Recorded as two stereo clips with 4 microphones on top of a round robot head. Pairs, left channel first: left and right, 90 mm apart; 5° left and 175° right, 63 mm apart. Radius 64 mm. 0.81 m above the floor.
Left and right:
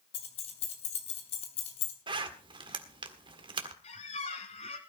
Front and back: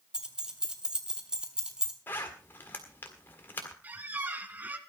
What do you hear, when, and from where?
0.1 s keys jangling: 110° left, 3 m
2.1 s a zipper: 60° right, 1.7 m
3.8 s a squeak: 125° left, 1.6 m